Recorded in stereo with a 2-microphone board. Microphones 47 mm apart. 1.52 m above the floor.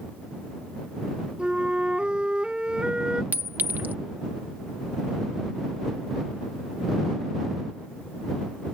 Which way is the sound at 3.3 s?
40° right (ahead or behind).